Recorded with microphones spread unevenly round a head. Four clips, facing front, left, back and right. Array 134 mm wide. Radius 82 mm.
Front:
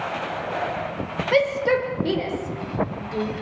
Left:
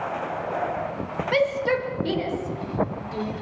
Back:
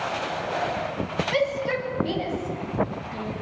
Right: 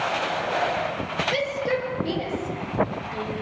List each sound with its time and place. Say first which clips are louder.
1.3 s a shout: left 5 dB, front 6 dB; 20° left, 5 m; by 3.3 s 10° left, 6 m